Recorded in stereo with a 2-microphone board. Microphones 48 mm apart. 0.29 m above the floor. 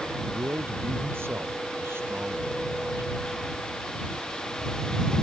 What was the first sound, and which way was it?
A man speaking, 55° right (ahead or behind).